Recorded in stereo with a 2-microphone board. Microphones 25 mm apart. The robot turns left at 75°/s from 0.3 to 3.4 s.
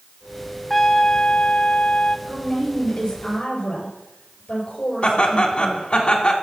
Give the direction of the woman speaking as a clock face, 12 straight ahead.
5 o'clock.